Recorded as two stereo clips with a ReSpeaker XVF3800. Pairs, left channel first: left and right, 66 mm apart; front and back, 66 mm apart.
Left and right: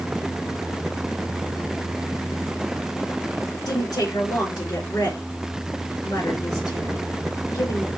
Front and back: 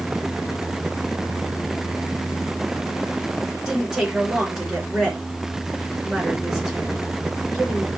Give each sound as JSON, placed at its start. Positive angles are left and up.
{"t": 3.6, "sound": "a woman speaking", "azimuth_deg": 95, "distance_m": 4.0}